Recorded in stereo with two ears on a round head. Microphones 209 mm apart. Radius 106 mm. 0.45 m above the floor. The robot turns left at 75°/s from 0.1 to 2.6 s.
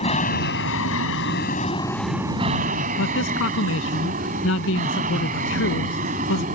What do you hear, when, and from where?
0.0 s an aircraft: 30° left (ahead or behind); by 6.6 s 35° right (ahead or behind)
3.0 s a man speaking: 65° left (ahead or behind)